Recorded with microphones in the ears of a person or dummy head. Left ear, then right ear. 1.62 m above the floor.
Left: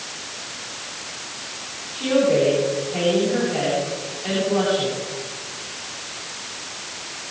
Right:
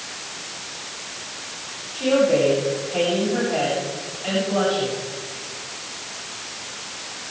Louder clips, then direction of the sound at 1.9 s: Even; 35° right (ahead or behind).